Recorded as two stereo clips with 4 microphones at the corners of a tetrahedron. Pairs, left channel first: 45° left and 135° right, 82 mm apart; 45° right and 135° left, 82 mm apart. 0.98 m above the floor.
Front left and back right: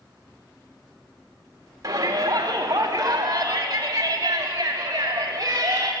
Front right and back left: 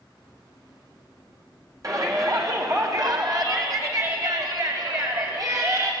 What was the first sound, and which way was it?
A shout, straight behind.